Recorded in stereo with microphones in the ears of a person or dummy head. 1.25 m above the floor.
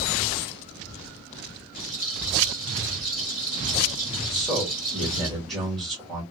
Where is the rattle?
Centre (ahead or behind), 2 m.